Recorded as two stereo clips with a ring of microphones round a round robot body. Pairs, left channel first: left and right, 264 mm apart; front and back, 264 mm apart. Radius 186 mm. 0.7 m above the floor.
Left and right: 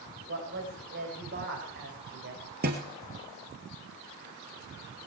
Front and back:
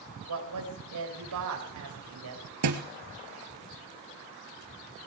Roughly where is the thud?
Behind right.